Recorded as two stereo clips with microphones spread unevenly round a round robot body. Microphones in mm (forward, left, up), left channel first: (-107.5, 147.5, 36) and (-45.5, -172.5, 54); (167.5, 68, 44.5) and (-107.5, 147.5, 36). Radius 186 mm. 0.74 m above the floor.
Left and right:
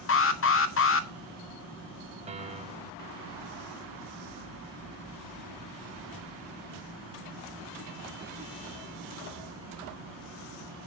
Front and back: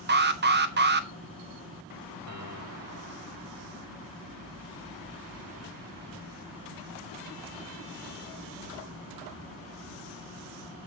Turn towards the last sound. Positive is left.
turn(degrees=-150)